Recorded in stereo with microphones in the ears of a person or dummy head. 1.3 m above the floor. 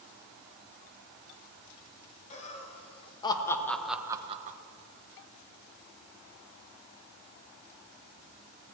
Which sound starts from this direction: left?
Laughter, at 2.3 s.